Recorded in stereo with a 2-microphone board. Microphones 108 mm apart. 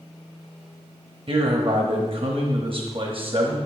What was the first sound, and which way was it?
A man speaking, 50° right (ahead or behind).